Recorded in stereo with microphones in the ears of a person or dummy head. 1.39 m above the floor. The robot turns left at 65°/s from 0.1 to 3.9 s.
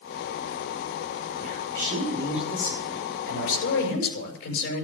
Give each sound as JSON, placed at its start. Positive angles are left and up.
{"t": 1.4, "sound": "a man speaking", "azimuth_deg": -110, "distance_m": 6.0}